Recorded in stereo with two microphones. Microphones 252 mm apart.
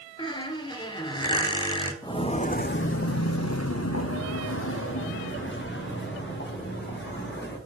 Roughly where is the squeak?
Centre.